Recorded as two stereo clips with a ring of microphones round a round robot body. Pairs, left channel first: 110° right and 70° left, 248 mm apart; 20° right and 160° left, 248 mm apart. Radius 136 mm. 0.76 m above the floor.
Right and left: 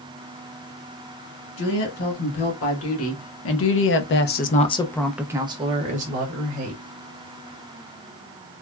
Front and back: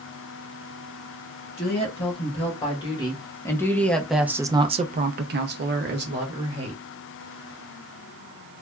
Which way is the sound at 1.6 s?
90° right.